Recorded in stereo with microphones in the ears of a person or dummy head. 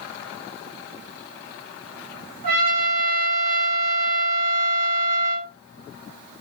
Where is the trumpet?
55° right (ahead or behind), 1.1 m.